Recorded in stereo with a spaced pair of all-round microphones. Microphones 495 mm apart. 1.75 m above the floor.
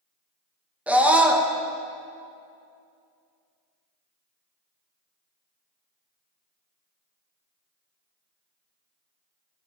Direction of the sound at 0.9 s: 5° right (ahead or behind).